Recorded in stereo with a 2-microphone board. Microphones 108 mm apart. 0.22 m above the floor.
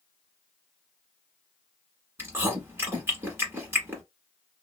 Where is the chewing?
20° right (ahead or behind), 1.4 m.